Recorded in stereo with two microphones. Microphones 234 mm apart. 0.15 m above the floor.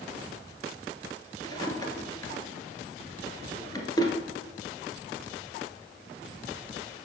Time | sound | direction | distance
1.4 | a drawer | 15° left (ahead or behind) | 1.3 m